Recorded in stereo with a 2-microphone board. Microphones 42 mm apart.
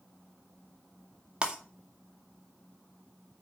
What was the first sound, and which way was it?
Breaking glass, 25° right (ahead or behind).